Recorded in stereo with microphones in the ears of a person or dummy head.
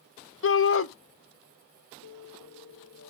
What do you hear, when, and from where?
0.4 s a shout: 60° left (ahead or behind), 0.6 m
2.0 s a piano: 80° left, 1.5 m